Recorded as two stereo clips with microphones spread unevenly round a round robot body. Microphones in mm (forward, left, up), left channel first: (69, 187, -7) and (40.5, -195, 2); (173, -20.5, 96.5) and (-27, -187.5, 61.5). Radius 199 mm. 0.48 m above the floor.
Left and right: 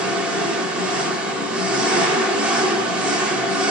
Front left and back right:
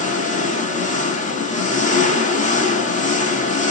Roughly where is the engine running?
Ahead.